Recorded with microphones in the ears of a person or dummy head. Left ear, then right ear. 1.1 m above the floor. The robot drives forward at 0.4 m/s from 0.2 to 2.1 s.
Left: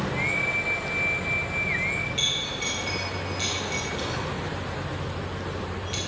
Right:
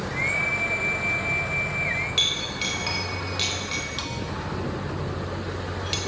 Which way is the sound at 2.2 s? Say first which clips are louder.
Right 3 dB; 50° right (ahead or behind).